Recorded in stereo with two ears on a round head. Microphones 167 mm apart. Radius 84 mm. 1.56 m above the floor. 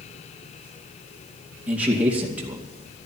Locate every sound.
1.7 s a man speaking: 10° right (ahead or behind), 2.5 m